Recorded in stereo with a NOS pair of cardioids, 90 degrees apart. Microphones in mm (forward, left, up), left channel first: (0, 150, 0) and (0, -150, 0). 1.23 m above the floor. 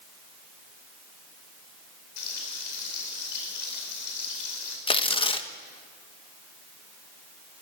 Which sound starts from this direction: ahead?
Tearing paper, at 4.9 s.